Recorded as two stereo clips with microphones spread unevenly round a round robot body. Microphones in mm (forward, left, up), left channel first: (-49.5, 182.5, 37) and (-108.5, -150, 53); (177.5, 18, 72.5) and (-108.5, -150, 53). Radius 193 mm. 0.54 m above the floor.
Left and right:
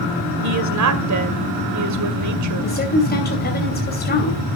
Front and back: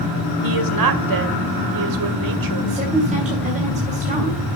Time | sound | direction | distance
0.4 | a woman speaking | 135° right | 2.0 m
2.6 | a woman speaking | 140° left | 3 m